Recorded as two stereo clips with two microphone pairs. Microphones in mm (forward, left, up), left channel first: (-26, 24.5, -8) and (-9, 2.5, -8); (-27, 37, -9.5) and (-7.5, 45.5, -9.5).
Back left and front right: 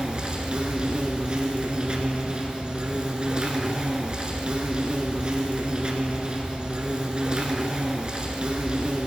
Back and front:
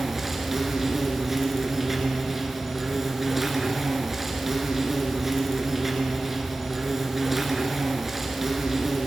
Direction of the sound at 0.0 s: 45° right.